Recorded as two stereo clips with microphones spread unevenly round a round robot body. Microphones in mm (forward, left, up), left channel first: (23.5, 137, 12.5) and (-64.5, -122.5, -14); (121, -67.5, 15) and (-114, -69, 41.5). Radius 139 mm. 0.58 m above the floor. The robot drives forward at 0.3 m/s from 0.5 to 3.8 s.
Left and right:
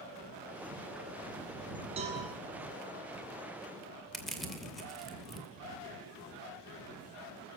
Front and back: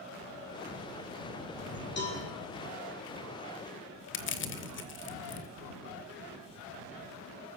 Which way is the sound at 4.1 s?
20° right.